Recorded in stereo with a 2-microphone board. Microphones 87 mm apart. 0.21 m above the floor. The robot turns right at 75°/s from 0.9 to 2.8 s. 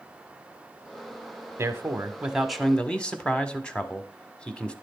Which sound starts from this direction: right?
A man speaking, at 1.6 s.